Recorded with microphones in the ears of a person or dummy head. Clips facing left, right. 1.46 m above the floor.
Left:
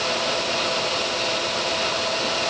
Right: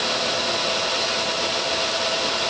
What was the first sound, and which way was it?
Only background noise.